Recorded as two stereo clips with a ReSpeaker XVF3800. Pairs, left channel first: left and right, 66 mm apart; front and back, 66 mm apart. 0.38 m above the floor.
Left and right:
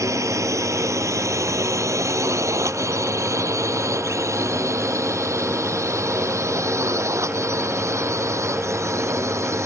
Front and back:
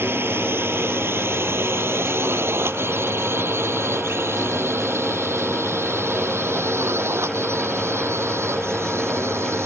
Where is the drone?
125° right; by 9.7 s 130° right.